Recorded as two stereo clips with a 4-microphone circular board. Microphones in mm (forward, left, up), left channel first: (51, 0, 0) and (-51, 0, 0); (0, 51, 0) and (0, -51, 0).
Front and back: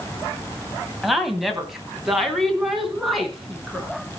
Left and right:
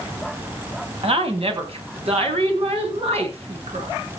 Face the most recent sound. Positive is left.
turn(degrees=-90)